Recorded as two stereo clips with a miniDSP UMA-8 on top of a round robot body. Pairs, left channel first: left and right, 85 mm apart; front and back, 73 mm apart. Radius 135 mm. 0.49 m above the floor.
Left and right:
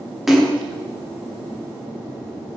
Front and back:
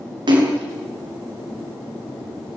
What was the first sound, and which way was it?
A splash, straight behind.